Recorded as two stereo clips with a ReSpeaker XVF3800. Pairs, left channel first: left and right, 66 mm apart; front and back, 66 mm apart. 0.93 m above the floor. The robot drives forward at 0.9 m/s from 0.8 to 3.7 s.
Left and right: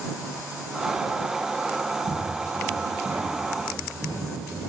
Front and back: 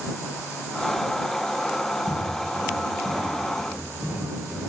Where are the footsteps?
70° right, 3 m; by 4.6 s 120° right, 5 m.